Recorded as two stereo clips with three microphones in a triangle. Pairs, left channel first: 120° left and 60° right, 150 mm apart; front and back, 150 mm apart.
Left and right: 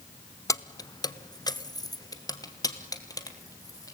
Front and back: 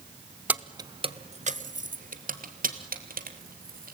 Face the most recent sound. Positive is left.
turn(degrees=-175)